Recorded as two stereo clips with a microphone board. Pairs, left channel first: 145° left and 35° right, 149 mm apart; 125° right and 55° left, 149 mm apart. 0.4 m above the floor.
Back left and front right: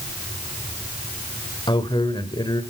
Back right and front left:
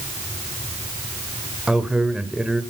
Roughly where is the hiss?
I don't hear a hiss.